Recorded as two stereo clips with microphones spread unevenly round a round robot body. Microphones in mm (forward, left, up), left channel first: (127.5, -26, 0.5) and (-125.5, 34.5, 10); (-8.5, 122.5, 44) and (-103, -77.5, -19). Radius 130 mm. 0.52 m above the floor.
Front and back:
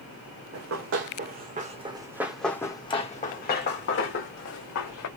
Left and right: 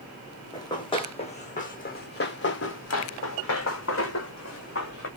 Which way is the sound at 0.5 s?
130° left.